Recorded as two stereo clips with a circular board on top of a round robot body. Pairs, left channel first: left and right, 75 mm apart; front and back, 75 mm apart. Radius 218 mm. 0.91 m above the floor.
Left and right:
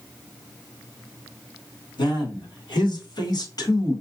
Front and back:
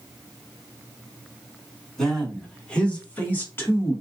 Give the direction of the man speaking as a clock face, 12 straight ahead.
9 o'clock.